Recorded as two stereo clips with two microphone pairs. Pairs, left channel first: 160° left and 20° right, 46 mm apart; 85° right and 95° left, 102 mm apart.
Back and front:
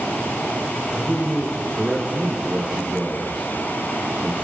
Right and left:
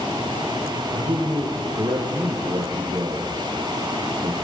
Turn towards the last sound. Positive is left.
turn(degrees=55)